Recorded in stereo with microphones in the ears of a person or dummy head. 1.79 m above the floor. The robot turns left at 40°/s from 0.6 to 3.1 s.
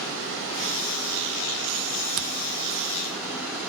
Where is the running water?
75° right, 4 m; by 3.7 s 175° right, 4 m.